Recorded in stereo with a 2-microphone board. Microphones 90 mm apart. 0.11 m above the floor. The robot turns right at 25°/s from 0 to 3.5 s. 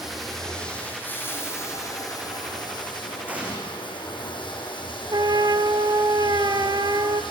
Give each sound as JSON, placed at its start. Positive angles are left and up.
{"t": 0.0, "sound": "running water", "azimuth_deg": -5, "distance_m": 5.0}
{"t": 3.3, "sound": "an explosion", "side_deg": -20, "distance_m": 4.5}
{"t": 5.1, "sound": "a trumpet", "side_deg": -60, "distance_m": 0.7}